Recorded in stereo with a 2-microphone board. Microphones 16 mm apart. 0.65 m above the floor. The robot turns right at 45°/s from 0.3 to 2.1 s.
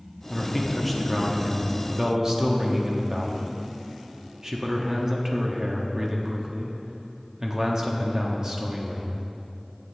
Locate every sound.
0.3 s a man speaking: 160° left, 0.9 m; by 9.3 s 120° right, 0.9 m